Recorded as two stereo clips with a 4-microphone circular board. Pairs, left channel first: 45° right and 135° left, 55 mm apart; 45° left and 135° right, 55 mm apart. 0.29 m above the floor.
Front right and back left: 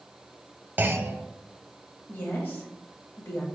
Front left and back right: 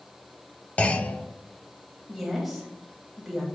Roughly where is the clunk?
Left.